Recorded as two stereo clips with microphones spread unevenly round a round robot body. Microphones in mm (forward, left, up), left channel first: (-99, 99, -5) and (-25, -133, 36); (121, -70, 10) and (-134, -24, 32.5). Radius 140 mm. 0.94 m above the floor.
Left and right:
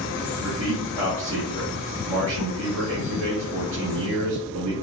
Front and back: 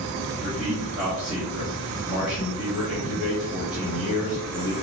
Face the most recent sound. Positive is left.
turn(degrees=-100)